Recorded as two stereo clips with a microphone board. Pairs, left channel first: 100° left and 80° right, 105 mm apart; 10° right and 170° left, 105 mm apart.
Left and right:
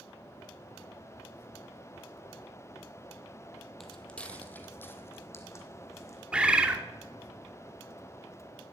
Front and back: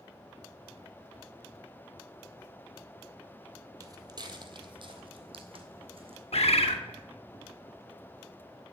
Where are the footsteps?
175° right, 1.1 m; by 6.2 s 155° left, 2 m.